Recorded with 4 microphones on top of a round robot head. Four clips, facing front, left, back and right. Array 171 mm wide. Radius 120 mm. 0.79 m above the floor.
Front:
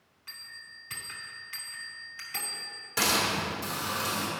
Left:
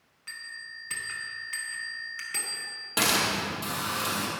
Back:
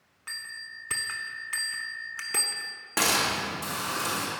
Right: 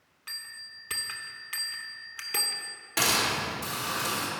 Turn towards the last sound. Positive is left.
turn(degrees=155)